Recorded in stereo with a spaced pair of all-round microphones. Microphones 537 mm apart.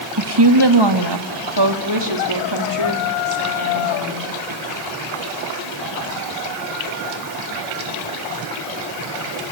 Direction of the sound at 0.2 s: 45° right (ahead or behind).